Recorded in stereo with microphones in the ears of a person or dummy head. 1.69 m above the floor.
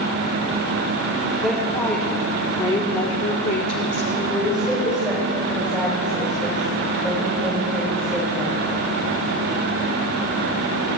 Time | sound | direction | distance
1.4 | a woman speaking | centre (ahead or behind) | 1.8 m
4.2 | a woman speaking | 5° right (ahead or behind) | 3 m